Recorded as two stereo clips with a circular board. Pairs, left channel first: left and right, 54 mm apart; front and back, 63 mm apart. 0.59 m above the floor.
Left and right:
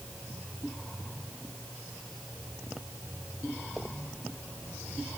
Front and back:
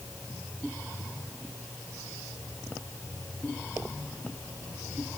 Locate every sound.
Only background noise.